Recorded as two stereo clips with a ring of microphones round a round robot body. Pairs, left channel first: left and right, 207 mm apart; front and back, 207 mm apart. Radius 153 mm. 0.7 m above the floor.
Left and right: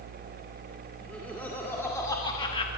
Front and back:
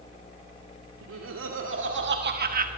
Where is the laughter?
175° left, 2.5 m; by 2.7 s 145° left, 1.1 m.